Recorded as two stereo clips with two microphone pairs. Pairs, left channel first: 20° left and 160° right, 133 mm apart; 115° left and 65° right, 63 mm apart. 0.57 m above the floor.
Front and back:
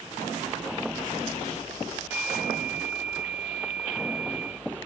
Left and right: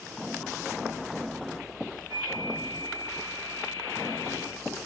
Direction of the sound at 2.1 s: 85° right.